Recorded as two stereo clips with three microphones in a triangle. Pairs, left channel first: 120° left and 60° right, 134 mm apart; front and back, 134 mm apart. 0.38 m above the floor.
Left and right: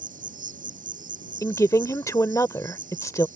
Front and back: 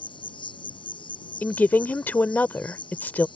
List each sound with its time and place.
0.0 s an insect: 50° right
1.4 s a woman speaking: 70° left